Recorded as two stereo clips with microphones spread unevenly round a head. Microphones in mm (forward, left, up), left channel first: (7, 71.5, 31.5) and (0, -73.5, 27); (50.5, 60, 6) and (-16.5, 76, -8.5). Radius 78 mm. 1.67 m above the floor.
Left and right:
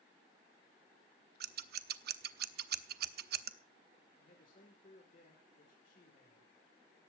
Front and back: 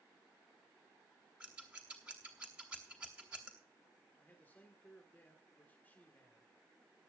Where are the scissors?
110° right, 0.9 m.